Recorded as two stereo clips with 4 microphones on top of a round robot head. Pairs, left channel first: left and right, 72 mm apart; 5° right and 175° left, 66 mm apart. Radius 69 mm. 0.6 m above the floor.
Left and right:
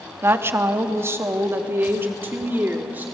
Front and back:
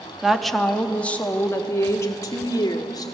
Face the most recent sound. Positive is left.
turn(degrees=-30)